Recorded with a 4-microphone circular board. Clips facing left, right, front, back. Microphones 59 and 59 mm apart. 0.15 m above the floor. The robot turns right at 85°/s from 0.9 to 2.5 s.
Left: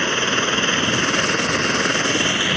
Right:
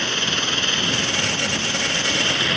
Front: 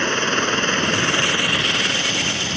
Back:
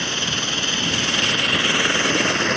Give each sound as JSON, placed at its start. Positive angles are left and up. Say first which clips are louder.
{"t": 0.0, "sound": "a helicopter", "louder": "left 4 dB, front 6 dB", "azimuth_deg": 35}